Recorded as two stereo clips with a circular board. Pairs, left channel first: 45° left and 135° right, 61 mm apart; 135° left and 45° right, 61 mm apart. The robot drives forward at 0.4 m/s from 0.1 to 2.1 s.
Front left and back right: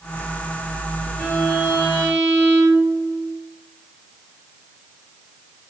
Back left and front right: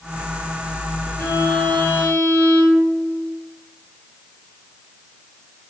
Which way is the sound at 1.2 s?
135° left.